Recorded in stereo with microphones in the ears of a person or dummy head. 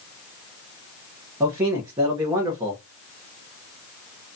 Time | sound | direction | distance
1.4 | a man speaking | 10° right (ahead or behind) | 0.6 m